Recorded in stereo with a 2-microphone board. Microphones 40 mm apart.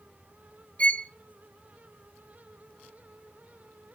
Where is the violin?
30° left (ahead or behind), 0.6 m.